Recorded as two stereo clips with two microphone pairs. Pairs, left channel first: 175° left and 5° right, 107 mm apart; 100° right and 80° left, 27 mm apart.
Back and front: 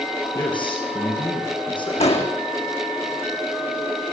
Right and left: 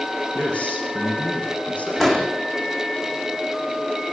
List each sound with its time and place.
0.3 s a man speaking: 140° right, 6.5 m
2.0 s an explosion: 175° right, 4 m